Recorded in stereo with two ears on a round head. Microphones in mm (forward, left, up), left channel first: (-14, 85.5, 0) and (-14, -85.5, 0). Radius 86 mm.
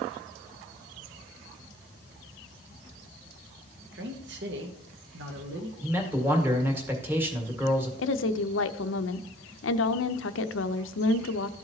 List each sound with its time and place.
3.9 s a man speaking: 60° right (ahead or behind), 1.2 m
5.8 s a man speaking: 10° right (ahead or behind), 1.6 m
8.0 s a woman speaking: 70° left (ahead or behind), 0.6 m